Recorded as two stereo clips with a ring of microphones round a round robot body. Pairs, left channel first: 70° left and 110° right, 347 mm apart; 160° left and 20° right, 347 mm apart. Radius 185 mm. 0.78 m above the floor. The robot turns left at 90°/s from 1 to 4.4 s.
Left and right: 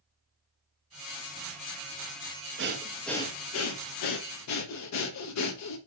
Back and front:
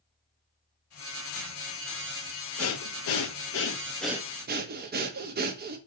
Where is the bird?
No bird in this recording.